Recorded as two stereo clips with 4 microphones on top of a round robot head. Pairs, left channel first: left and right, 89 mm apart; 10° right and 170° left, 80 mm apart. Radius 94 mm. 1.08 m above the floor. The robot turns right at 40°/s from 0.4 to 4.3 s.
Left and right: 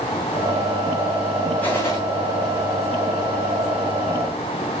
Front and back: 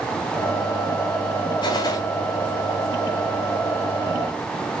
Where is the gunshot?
10° left, 1.2 m; by 2.0 s 25° left, 1.2 m.